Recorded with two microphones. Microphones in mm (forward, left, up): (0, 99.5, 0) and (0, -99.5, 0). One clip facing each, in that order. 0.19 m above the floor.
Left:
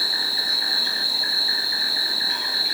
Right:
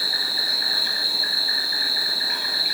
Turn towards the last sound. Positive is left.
turn(degrees=-35)  # may be behind; listen again after turning